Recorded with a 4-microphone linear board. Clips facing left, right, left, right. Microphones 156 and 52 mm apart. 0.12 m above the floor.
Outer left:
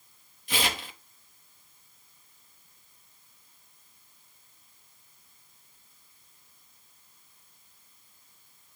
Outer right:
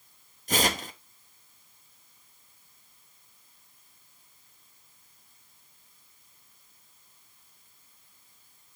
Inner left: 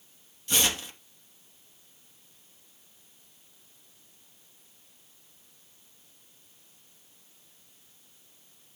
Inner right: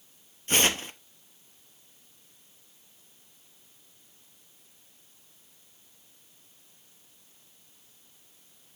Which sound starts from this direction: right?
Tearing paper, at 0.5 s.